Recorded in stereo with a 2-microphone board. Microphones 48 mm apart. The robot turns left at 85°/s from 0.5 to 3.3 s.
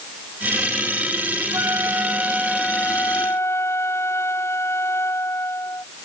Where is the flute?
95° right; by 5.8 s 115° left.